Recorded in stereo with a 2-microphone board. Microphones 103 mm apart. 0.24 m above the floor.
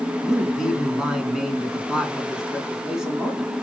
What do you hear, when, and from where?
0.2 s a man speaking: 5° right (ahead or behind), 3 m